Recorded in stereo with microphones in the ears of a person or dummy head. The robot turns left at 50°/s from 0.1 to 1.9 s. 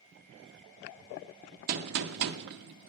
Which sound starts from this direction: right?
A gunshot, at 1.7 s.